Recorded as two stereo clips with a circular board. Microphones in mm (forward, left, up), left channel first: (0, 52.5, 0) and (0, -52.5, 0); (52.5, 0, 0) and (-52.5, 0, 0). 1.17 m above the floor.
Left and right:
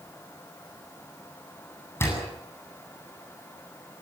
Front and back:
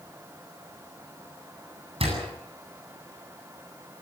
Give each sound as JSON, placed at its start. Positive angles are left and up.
{"t": 2.0, "sound": "a door slam", "azimuth_deg": 155, "distance_m": 8.5}